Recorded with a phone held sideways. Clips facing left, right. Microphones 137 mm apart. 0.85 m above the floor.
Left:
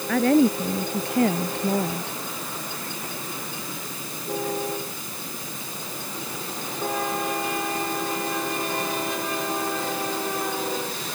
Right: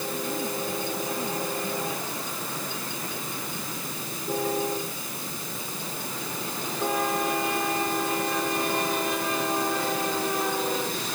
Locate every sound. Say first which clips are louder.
0.1 s a woman speaking: left 16 dB; 75° left (ahead or behind); by 2.2 s 70° left (ahead or behind)